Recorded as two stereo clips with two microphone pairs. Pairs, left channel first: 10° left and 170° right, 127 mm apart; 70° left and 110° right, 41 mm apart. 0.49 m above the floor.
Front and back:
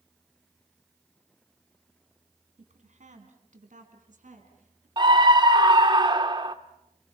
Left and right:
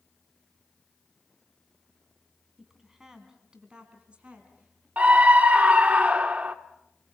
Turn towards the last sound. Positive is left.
turn(degrees=-140)